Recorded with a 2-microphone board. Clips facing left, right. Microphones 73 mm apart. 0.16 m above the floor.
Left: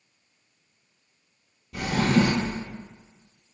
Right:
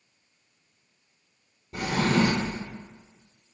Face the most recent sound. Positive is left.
turn(degrees=-35)  # may be behind; listen again after turning